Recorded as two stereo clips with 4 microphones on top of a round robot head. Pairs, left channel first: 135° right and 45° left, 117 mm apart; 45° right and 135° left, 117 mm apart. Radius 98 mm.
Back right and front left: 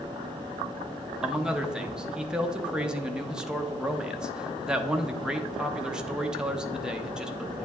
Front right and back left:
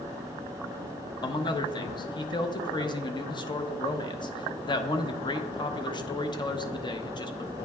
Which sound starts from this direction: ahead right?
A man speaking, at 1.2 s.